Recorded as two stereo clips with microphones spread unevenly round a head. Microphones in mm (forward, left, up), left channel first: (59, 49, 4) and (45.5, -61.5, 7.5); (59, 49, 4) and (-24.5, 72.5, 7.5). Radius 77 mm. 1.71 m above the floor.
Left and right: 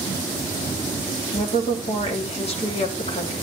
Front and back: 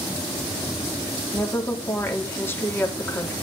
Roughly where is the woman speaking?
Ahead left.